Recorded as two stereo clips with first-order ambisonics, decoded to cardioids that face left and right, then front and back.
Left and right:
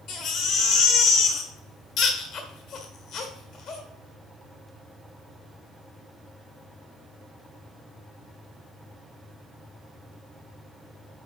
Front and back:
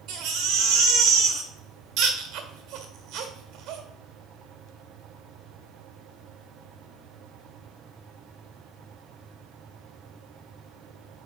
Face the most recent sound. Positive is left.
turn(degrees=135)